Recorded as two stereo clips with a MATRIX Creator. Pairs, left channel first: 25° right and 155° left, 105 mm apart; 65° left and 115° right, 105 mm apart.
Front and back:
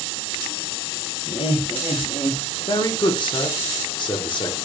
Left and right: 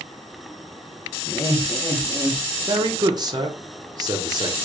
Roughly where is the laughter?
Ahead.